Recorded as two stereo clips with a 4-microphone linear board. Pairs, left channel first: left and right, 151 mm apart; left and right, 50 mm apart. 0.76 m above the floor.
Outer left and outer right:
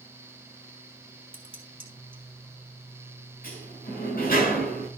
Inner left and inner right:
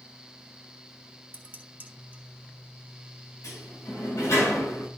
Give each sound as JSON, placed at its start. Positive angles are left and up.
{"t": 1.3, "sound": "dishes clattering", "side_deg": -35, "distance_m": 2.0}
{"t": 3.4, "sound": "a sliding door", "side_deg": 75, "distance_m": 8.0}